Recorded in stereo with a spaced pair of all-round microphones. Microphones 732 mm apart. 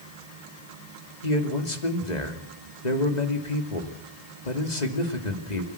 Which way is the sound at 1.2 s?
70° left (ahead or behind).